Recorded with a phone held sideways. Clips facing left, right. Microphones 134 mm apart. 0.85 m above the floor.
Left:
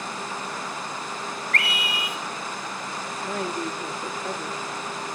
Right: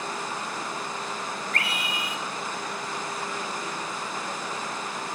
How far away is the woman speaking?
About 1.5 m.